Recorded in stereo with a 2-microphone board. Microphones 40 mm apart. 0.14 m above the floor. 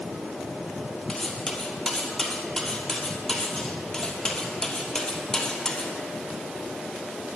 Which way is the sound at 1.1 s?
15° left (ahead or behind).